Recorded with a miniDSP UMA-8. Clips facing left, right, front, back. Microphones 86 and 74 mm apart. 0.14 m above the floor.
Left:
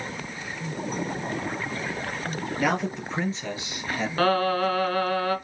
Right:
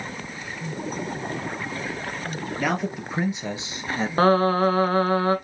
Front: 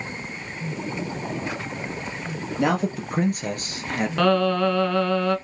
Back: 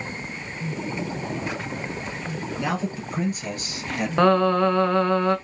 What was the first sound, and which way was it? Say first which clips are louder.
A man speaking: even, front 6 dB; straight ahead.